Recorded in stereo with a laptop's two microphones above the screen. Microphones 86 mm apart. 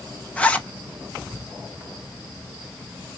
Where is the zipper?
15° left (ahead or behind), 0.7 m.